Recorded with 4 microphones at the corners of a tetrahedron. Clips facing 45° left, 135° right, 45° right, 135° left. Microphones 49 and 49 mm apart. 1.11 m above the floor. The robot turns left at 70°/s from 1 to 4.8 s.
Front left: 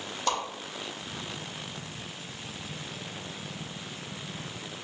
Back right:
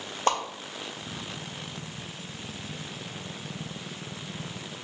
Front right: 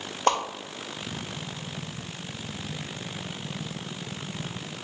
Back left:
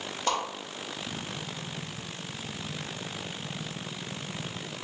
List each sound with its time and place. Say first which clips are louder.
0.3 s a whoosh: back right 4 dB, front right 6 dB; 85° right, 0.7 m